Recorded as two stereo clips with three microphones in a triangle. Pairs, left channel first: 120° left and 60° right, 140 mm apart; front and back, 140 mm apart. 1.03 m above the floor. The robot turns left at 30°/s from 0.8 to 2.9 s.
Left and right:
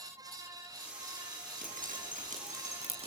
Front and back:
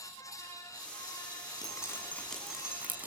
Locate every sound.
1.6 s dripping: 65° right, 7 m; by 3.1 s 105° right, 7 m